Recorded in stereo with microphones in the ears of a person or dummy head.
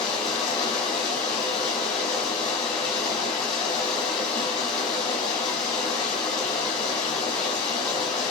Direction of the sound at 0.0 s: 25° left (ahead or behind).